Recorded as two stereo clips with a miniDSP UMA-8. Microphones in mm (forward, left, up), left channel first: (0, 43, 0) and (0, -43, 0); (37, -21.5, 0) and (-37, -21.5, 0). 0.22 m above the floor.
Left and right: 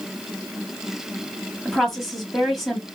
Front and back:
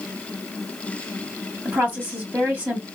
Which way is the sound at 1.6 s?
Straight behind.